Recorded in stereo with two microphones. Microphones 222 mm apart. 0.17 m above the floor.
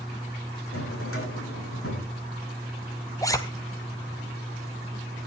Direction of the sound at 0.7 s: 85° left.